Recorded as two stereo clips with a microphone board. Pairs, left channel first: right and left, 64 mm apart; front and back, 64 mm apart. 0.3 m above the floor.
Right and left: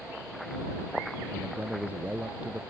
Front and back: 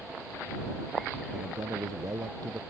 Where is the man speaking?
160° left.